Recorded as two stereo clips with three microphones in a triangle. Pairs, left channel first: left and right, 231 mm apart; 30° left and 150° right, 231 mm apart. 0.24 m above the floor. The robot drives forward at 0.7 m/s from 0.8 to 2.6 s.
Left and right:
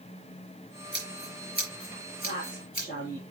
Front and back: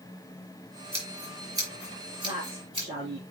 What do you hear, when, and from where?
0.9 s scissors: 135° left, 4 m; by 2.9 s 145° left, 5 m
2.2 s a woman speaking: 145° left, 3 m